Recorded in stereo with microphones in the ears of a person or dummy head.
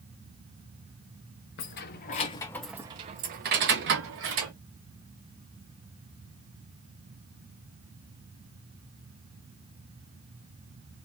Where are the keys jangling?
55° left (ahead or behind), 0.9 m; by 4.5 s 70° right (ahead or behind), 1.4 m.